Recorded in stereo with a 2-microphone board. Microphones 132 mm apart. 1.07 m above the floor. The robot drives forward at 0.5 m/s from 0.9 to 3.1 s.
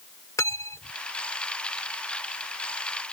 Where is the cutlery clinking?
25° left (ahead or behind).